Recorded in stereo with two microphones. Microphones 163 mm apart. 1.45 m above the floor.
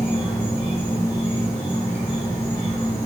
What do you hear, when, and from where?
0.0 s an insect: 15° left (ahead or behind), 1.1 m